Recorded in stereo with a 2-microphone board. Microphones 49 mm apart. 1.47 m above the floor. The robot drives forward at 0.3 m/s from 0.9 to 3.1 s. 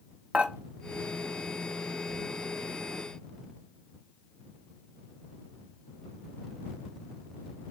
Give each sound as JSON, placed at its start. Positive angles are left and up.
{"t": 0.3, "sound": "dishes clattering", "side_deg": -25, "distance_m": 0.7}